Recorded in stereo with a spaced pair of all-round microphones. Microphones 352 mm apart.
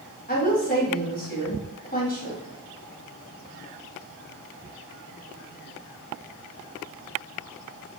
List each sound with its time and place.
0.3 s a woman speaking: 25° left (ahead or behind), 2.5 m